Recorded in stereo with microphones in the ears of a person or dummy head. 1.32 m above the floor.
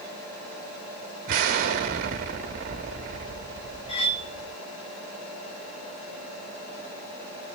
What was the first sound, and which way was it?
An explosion, 45° right (ahead or behind).